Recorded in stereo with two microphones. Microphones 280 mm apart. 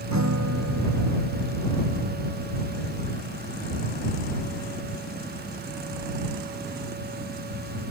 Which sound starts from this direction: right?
A guitar, at 0.1 s.